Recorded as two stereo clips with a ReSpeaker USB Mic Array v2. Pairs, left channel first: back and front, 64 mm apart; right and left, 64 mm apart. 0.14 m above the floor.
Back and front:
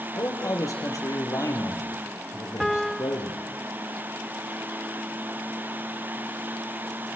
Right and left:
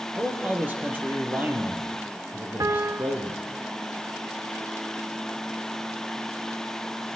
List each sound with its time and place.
0.1 s a man speaking: 150° left, 4 m
2.6 s a piano: 90° left, 0.6 m